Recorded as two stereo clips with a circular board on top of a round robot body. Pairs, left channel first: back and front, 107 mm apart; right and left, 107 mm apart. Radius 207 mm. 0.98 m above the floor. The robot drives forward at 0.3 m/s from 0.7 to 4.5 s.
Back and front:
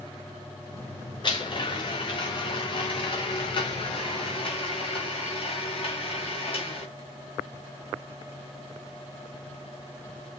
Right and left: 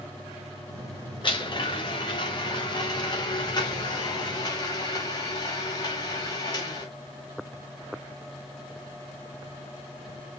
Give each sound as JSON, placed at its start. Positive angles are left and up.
{"t": 1.2, "sound": "a blender", "azimuth_deg": -135, "distance_m": 3.0}